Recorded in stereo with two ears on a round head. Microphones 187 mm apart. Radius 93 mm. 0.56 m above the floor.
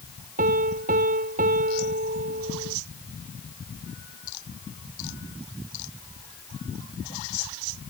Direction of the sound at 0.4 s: 40° right (ahead or behind).